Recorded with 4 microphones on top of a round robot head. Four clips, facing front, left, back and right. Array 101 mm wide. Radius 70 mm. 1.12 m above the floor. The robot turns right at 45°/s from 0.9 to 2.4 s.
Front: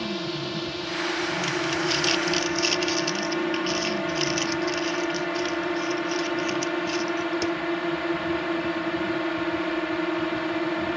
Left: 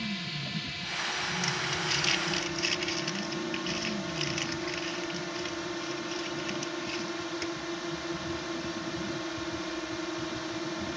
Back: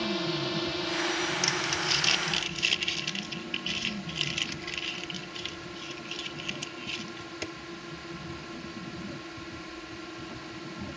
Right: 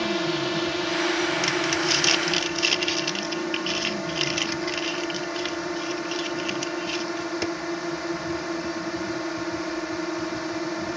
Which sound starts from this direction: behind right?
Crumpling, at 1.4 s.